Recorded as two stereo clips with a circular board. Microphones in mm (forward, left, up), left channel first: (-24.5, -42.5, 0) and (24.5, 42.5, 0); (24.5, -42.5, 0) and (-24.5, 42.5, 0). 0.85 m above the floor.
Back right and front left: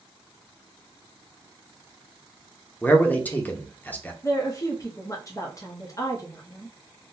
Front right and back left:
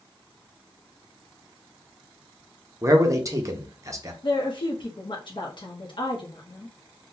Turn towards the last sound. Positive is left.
turn(degrees=-75)